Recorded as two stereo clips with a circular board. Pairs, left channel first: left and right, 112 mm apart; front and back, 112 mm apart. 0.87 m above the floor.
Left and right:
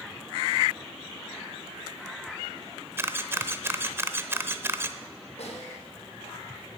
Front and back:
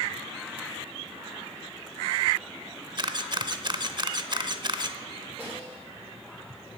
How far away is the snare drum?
About 4 m.